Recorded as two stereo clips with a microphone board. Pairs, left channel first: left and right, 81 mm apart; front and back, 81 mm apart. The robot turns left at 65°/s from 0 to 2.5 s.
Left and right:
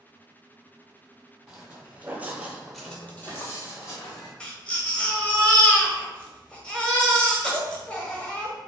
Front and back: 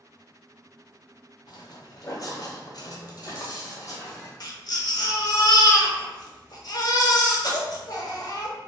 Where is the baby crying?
15° left, 0.6 m.